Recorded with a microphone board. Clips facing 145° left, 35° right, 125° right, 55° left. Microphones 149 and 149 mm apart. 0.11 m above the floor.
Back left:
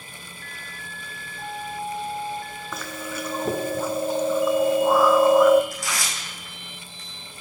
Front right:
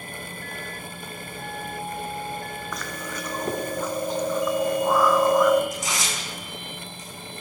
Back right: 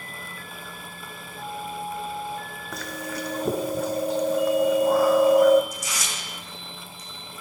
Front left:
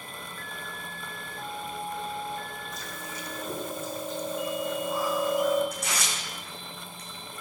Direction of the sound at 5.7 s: 35° left.